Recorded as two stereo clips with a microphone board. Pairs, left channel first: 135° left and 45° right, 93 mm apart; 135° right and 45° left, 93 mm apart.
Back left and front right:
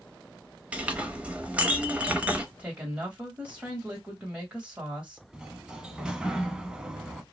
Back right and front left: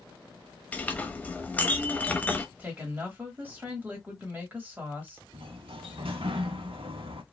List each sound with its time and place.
0.7 s a clink: 95° right, 0.6 m
2.6 s a woman speaking: 10° left, 1.0 m
5.3 s a sliding door: 35° left, 0.5 m